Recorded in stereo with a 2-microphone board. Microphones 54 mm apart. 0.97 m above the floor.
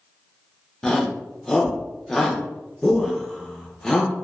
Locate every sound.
0.8 s a shout: 10° left (ahead or behind), 0.6 m